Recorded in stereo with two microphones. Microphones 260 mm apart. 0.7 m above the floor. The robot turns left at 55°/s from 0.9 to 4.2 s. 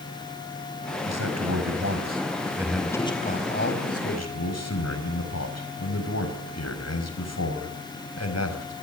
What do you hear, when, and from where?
1.1 s a man speaking: 85° right, 4.5 m; by 8.7 s 100° left, 4.5 m